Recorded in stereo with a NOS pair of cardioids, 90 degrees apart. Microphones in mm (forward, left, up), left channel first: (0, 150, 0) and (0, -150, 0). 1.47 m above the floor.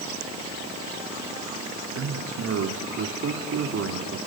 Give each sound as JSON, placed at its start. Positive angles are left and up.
{"t": 1.9, "sound": "a man speaking", "azimuth_deg": -50, "distance_m": 3.0}